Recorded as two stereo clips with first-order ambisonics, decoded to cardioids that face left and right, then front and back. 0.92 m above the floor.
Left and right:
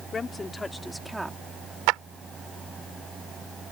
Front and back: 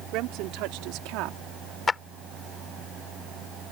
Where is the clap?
75° right.